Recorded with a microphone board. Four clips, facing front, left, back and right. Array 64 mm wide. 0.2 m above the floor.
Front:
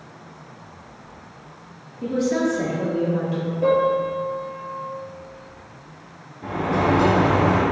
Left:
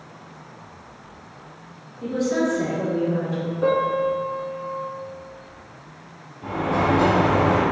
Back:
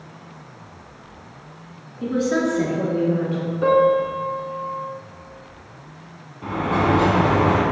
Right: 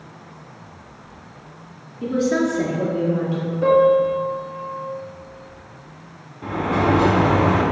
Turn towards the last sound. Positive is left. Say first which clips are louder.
# right 2 dB, back 1 dB
turn(degrees=-150)